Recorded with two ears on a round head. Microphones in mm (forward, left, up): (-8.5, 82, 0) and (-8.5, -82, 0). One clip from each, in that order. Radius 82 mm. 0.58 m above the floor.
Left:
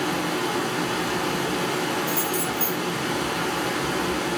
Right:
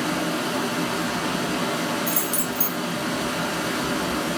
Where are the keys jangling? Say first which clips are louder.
Left 1 dB; 65° right (ahead or behind), 1.3 m.